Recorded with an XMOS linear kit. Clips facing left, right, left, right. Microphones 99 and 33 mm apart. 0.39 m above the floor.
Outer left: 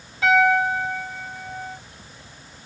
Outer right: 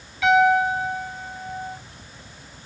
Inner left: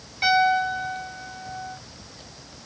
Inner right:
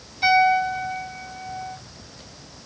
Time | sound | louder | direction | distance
0.2 | a piano | outer right 1 dB, inner right 2 dB | 35° left (ahead or behind) | 1.6 m